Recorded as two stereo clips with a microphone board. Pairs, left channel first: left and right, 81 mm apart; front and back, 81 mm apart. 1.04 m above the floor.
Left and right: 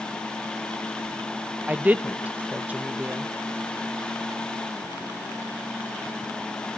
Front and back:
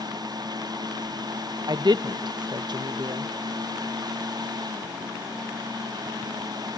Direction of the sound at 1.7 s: 160° right.